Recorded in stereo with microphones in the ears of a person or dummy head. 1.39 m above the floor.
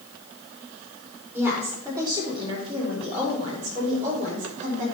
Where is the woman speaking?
15° right (ahead or behind), 3 m; by 4.8 s 45° right (ahead or behind), 4 m.